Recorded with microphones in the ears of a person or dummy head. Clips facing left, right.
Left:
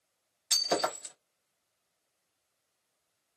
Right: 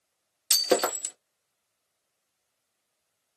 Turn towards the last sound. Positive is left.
turn(degrees=-60)  # may be behind; listen again after turning